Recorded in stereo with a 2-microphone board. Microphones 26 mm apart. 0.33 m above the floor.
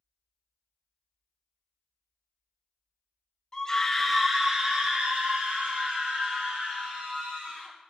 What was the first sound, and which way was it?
A scream, 25° left (ahead or behind).